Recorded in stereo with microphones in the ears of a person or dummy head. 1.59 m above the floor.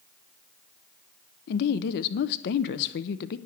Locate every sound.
1.5 s a woman speaking: 55° left (ahead or behind), 0.6 m